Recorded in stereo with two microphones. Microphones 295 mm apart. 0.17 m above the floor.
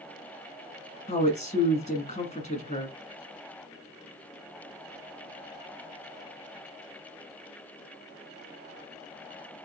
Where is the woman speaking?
25° left (ahead or behind), 1.5 m.